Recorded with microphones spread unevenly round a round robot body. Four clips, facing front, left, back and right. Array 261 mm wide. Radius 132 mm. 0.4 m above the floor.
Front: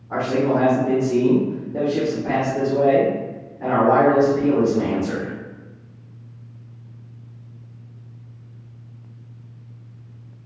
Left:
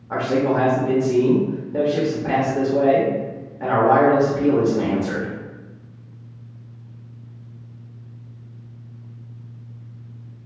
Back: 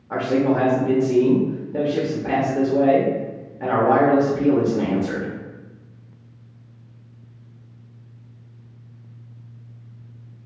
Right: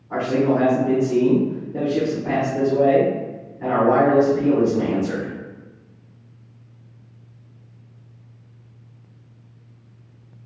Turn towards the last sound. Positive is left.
turn(degrees=165)